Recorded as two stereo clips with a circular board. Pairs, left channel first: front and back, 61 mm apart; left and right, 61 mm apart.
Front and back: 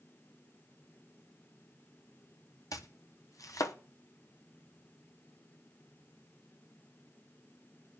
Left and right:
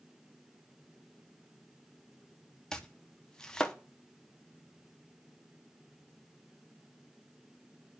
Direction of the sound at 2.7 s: 10° left.